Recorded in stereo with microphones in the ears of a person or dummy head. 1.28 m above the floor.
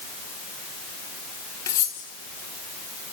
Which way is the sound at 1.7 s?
15° left (ahead or behind).